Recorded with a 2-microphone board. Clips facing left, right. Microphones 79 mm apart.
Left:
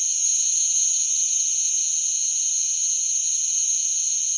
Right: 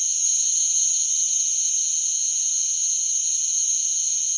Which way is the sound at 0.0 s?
50° right (ahead or behind).